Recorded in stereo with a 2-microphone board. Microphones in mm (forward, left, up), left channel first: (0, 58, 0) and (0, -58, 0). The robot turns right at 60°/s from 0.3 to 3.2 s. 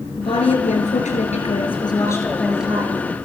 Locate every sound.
0.2 s a woman speaking: 50° left, 6 m; by 3.0 s 150° right, 6 m